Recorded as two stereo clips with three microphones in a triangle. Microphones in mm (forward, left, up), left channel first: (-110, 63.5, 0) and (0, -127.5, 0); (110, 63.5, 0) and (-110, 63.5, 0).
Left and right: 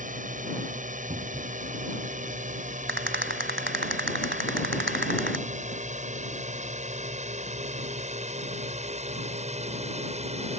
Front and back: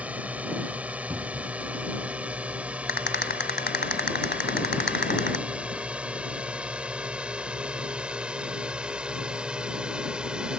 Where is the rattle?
30° right.